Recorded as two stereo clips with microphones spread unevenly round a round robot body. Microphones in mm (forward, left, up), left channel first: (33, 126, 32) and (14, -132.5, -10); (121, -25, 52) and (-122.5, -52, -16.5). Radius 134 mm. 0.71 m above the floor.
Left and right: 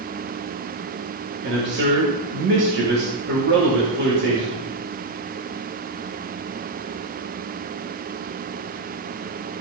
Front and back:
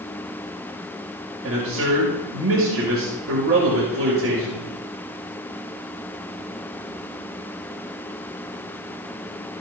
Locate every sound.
1.4 s a man speaking: 145° right, 2.5 m